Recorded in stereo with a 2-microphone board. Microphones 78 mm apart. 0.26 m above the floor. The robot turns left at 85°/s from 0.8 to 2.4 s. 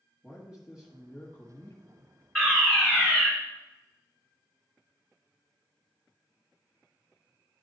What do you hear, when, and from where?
0.2 s a man speaking: 170° right, 1.3 m; by 2.1 s 80° left, 1.3 m
2.4 s a fire alarm: 15° left (ahead or behind), 2.5 m; by 3.3 s 20° left (ahead or behind), 2.5 m